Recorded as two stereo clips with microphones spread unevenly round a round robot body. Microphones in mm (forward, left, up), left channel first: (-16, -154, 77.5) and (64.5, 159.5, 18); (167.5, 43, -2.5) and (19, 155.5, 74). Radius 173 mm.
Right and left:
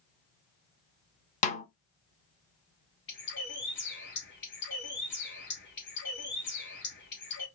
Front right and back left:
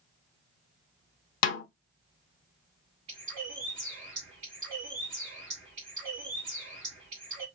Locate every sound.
1.4 s a snare drum: 35° right, 0.5 m
3.1 s a bird: 165° right, 1.2 m